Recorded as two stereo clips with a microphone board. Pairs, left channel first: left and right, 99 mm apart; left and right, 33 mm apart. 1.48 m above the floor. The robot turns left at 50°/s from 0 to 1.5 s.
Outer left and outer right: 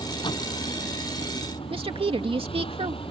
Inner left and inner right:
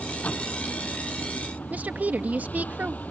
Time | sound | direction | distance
0.0 | a vehicle | 140° left | ?
1.7 | a woman speaking | 65° right (ahead or behind) | ?